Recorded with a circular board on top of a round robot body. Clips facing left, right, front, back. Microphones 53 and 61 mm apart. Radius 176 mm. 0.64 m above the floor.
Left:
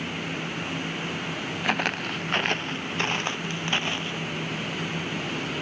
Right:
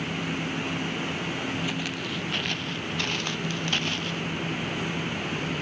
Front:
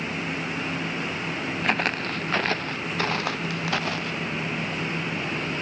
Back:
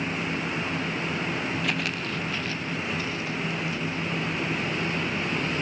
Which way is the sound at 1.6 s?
55° left.